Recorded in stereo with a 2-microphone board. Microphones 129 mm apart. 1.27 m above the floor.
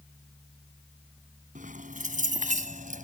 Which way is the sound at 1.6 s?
85° right.